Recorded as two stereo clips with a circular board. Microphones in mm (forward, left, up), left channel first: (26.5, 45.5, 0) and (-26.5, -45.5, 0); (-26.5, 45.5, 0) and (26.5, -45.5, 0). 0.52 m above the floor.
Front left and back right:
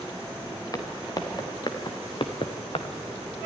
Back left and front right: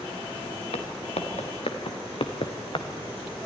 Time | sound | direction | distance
0.7 | footsteps | 115° left | 2.5 m